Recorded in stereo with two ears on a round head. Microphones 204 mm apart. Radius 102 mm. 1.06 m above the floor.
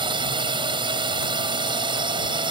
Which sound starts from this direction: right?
A drone, at 0.0 s.